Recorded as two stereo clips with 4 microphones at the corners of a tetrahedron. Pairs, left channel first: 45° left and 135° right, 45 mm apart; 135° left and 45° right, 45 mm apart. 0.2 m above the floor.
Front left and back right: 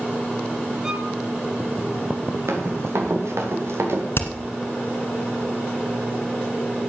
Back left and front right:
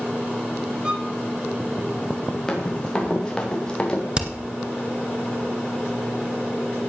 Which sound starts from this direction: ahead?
Hammering, at 4.2 s.